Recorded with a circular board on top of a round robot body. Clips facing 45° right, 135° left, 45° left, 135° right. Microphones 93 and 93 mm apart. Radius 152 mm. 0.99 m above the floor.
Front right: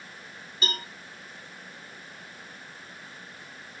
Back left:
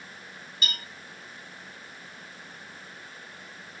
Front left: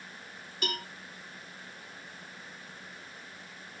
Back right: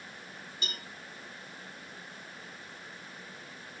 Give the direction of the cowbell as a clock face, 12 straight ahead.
12 o'clock.